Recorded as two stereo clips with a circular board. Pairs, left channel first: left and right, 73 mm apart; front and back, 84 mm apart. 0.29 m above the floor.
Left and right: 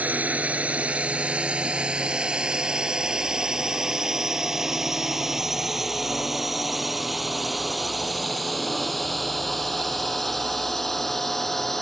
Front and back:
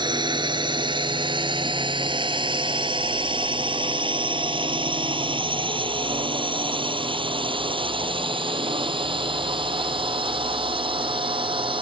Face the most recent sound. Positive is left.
turn(degrees=175)